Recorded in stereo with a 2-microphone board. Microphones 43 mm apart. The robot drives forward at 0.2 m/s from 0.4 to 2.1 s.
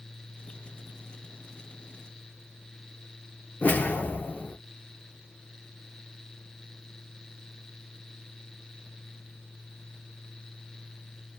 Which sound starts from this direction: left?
A whoosh, at 3.6 s.